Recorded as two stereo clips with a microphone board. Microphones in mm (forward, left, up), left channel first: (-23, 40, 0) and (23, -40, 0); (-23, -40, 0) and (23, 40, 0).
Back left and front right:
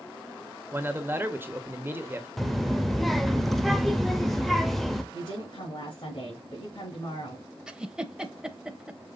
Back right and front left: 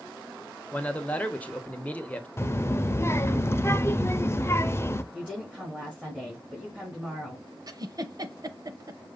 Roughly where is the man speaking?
Right.